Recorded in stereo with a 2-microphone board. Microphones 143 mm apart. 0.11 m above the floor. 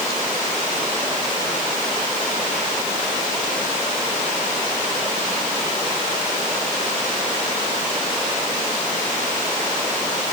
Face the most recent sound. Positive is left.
No sound to turn to.